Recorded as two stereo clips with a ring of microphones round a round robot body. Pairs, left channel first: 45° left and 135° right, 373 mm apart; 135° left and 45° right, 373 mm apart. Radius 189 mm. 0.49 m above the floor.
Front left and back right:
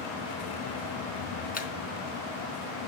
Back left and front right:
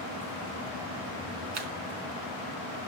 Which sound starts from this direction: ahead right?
A camera shutter, at 1.5 s.